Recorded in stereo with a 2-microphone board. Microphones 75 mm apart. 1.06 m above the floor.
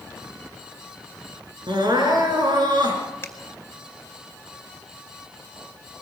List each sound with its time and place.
1.7 s crying: 70° right (ahead or behind), 4.5 m
3.2 s a finger snap: 30° left (ahead or behind), 2.5 m